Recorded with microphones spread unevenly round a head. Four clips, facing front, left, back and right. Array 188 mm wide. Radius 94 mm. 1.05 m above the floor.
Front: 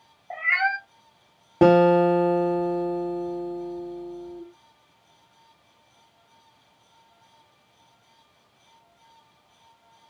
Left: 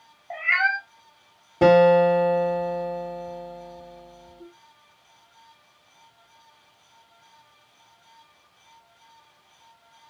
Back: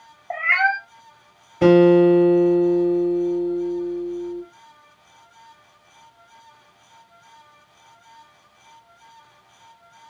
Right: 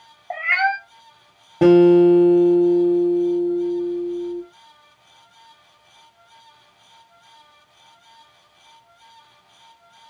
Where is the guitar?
15° right, 1.3 m.